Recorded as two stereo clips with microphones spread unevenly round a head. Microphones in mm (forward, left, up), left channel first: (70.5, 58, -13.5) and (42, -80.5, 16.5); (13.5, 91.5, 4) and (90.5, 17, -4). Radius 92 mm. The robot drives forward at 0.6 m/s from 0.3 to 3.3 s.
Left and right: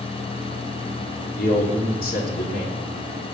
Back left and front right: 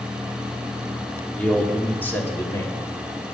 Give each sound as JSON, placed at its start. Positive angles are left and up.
{"t": 1.4, "sound": "a man speaking", "azimuth_deg": 60, "distance_m": 3.0}